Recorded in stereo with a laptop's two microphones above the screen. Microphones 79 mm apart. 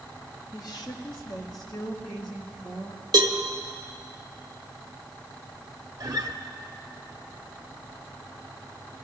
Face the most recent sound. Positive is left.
turn(degrees=-55)  # may be behind; listen again after turning